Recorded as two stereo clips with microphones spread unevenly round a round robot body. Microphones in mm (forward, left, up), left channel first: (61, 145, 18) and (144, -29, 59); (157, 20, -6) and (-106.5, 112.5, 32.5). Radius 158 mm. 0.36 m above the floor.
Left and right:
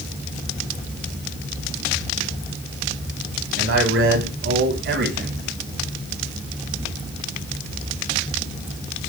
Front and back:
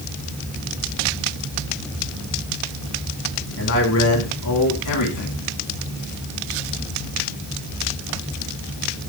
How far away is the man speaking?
About 4 m.